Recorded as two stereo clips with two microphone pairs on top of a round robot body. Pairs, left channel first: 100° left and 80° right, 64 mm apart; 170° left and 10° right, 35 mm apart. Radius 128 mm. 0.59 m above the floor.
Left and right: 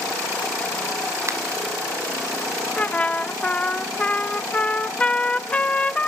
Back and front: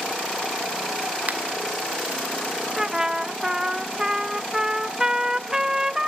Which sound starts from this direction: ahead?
A trumpet, at 2.8 s.